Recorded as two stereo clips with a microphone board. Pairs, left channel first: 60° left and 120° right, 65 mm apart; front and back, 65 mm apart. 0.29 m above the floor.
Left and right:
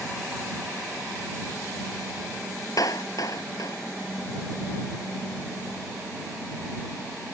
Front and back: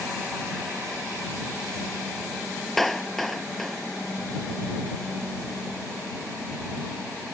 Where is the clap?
85° left.